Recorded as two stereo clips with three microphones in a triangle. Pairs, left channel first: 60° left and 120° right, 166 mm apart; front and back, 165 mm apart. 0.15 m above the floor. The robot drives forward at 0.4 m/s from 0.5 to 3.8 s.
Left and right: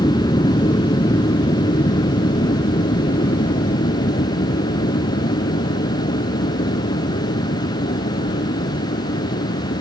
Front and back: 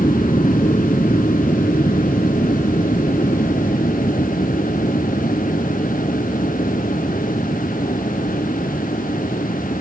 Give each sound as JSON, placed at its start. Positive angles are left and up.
{"t": 0.0, "sound": "an aircraft", "azimuth_deg": 30}